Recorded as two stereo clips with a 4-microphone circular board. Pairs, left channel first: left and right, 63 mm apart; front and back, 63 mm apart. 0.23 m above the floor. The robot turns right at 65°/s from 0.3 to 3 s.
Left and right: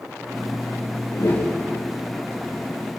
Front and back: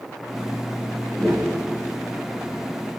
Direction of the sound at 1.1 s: 65° left.